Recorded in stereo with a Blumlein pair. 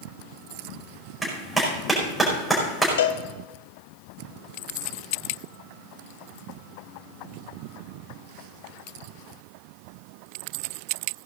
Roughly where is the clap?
Ahead.